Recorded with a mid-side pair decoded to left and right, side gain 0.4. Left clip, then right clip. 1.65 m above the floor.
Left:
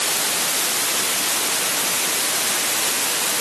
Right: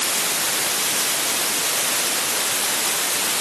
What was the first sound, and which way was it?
Only background noise.